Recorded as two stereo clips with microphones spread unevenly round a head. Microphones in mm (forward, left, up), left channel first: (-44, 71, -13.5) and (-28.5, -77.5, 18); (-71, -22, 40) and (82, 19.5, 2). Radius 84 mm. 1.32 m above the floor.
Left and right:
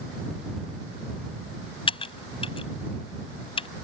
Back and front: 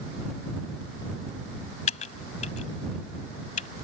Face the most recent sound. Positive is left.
turn(degrees=155)